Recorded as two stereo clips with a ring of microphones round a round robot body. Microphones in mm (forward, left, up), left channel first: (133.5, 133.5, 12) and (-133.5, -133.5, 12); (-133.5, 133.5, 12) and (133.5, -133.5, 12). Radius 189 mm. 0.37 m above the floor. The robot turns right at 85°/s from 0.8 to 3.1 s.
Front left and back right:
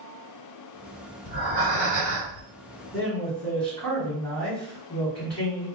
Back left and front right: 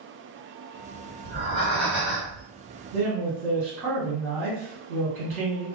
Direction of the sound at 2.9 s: 55° right.